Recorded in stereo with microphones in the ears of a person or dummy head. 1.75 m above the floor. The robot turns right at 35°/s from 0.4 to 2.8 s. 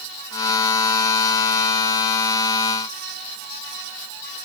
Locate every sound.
Only background noise.